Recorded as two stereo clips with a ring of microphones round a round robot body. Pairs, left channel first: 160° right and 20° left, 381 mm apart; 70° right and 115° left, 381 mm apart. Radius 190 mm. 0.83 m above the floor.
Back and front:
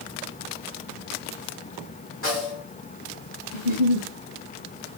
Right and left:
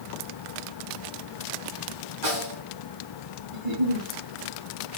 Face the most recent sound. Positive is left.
turn(degrees=130)